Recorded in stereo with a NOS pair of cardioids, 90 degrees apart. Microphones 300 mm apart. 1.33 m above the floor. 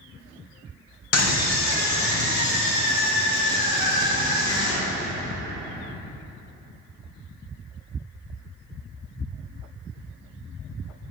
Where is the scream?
60° left, 0.9 m; by 5.1 s 70° left, 4 m.